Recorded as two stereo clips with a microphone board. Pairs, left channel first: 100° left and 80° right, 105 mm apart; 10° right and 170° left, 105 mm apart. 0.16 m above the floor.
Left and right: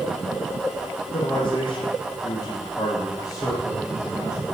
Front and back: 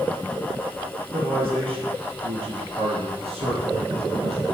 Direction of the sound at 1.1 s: 140° left.